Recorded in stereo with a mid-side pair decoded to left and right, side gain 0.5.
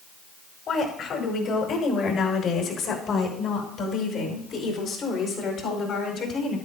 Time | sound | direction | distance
0.7 | a woman speaking | 65° left | 4.5 m